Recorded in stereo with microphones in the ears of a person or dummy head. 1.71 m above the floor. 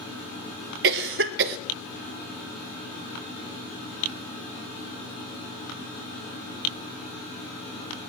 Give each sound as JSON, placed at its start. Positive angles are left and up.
{"t": 0.8, "sound": "a cough", "side_deg": -60, "distance_m": 0.5}